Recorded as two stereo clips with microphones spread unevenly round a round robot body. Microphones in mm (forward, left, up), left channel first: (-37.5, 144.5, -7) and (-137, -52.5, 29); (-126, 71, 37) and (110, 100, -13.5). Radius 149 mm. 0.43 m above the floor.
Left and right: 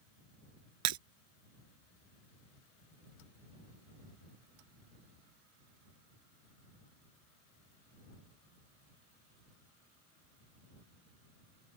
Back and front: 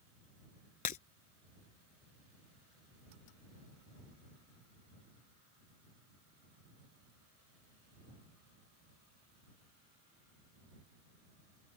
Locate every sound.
0.8 s breaking glass: 105° right